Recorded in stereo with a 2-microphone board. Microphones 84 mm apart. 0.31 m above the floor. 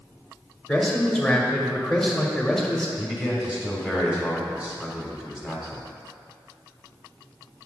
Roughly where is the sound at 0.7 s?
Centre.